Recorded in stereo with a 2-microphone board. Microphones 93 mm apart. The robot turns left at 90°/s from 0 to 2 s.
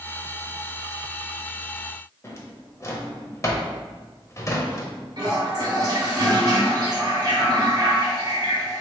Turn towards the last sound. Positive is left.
turn(degrees=-45)  # may be behind; listen again after turning